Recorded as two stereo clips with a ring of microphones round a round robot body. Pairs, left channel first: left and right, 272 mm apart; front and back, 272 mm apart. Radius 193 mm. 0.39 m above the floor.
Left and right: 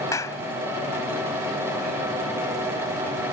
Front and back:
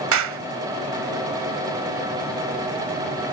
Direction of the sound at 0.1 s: 170° left.